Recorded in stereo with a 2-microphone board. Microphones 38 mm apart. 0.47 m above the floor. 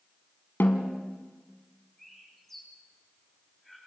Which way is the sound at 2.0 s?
5° left (ahead or behind).